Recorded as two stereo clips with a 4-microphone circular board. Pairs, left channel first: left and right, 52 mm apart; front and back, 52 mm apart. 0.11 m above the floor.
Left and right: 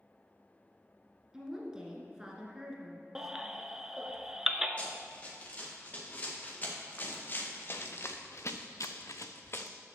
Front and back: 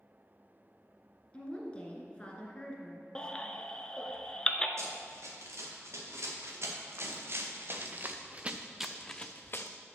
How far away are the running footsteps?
About 3.5 m.